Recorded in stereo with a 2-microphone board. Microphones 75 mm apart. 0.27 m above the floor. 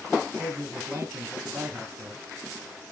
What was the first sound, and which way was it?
A man speaking, 35° right (ahead or behind).